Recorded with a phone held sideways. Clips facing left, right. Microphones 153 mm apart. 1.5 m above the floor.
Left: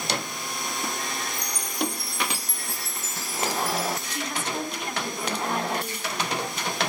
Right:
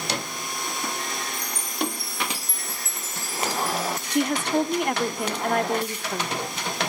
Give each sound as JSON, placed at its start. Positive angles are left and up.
{"t": 1.3, "sound": "a chime", "side_deg": 75, "distance_m": 3.5}
{"t": 4.1, "sound": "a woman speaking", "side_deg": -60, "distance_m": 0.9}